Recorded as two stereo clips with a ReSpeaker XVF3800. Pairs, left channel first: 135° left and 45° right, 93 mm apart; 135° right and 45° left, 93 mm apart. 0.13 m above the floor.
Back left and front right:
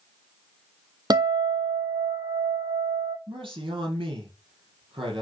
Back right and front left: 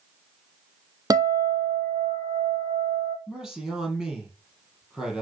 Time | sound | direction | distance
1.1 | a guitar | 5° right | 1.0 m
3.3 | a man speaking | 40° right | 4 m